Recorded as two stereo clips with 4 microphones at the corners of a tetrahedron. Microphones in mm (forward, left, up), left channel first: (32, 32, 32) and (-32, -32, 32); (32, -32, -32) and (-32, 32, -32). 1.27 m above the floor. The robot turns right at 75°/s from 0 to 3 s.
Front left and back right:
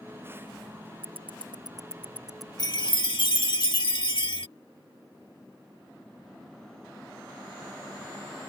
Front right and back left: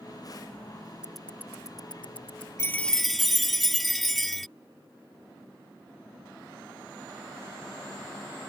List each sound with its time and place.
1.0 s ticking: 145° right; by 2.5 s 35° right
2.6 s a chime: 10° left; by 4.5 s 45° left